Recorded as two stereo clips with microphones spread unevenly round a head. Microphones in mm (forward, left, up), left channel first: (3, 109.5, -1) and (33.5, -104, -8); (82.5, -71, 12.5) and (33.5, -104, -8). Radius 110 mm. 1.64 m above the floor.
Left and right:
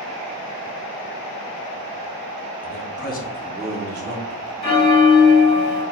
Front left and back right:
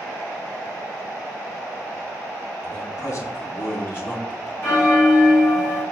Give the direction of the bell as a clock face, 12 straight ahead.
10 o'clock.